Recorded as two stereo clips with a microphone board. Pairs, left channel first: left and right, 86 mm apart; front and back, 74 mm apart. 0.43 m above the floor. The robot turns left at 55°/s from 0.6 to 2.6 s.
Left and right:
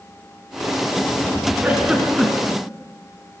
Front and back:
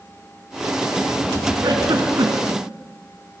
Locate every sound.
1.6 s a giggle: 155° right, 3.5 m; by 2.6 s 150° left, 3.5 m